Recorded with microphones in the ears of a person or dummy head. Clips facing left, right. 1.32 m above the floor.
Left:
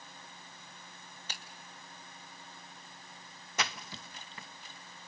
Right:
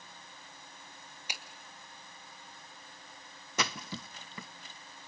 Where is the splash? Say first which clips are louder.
Right 3 dB; 85° right, 0.6 m.